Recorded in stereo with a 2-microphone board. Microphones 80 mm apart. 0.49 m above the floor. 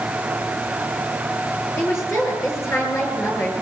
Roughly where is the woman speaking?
Left.